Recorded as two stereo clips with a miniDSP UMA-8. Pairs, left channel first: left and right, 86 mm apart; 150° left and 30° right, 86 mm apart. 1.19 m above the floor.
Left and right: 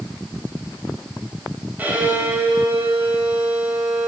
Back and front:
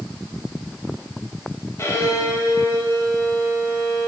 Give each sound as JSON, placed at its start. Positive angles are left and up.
{"t": 1.8, "sound": "a violin", "azimuth_deg": -160, "distance_m": 1.8}